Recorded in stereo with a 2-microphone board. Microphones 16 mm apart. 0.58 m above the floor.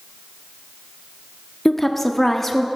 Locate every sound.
1.6 s a woman speaking: 15° left (ahead or behind), 0.7 m